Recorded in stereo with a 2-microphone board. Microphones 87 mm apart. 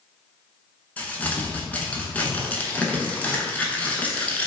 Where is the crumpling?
20° left (ahead or behind), 0.5 m.